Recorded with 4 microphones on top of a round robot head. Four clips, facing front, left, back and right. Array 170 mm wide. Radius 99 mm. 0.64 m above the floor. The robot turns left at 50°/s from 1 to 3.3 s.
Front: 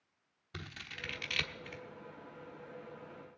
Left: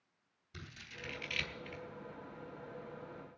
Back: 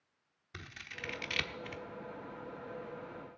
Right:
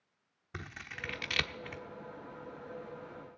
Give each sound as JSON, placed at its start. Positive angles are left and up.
{"t": 0.5, "sound": "scissors", "azimuth_deg": -70, "distance_m": 1.2}